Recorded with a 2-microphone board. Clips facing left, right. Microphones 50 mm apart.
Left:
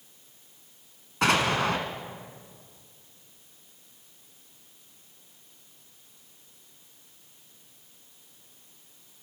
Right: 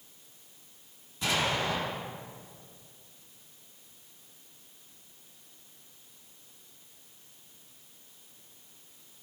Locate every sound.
1.2 s an explosion: 75° left (ahead or behind), 1.6 m